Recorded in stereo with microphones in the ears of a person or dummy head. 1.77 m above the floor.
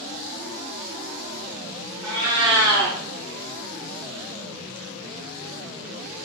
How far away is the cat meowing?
About 1.1 m.